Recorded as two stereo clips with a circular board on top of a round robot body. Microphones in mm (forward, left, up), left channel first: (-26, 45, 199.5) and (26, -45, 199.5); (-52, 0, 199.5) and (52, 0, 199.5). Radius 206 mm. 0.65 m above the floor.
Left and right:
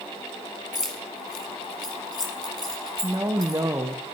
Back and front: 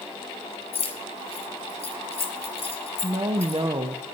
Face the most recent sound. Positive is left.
turn(degrees=-5)